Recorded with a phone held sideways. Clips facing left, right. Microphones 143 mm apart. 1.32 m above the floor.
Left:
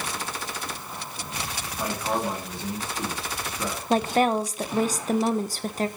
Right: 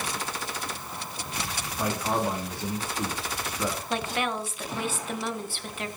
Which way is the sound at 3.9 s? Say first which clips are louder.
Left 12 dB; 40° left (ahead or behind).